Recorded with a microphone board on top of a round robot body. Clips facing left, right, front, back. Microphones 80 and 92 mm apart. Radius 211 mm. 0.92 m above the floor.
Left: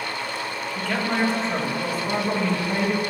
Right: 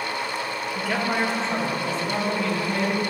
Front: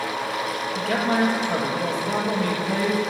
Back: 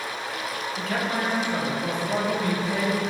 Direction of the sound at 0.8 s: 10° right.